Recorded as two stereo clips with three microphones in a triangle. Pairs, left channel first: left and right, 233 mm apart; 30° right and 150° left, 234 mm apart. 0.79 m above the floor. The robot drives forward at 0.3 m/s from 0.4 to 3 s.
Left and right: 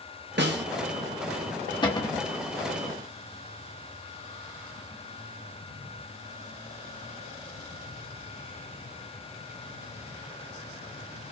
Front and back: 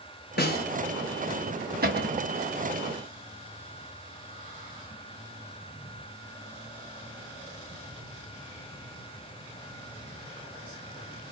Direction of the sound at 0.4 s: 65° right.